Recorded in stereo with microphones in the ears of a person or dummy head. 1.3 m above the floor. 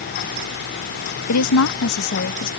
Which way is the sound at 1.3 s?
85° left.